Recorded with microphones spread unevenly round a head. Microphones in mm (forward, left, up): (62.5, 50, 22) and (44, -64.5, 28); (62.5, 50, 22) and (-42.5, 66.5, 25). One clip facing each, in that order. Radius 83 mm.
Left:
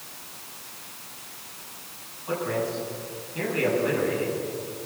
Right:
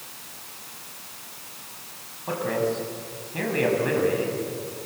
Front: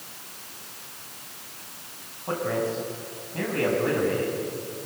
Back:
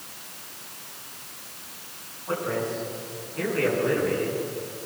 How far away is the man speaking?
About 8 m.